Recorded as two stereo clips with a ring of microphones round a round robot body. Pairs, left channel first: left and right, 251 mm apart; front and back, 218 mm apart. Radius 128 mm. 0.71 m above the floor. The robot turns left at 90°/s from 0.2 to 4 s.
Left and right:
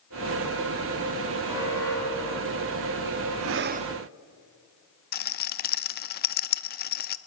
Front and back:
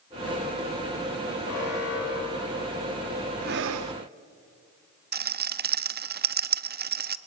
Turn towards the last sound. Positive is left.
turn(degrees=140)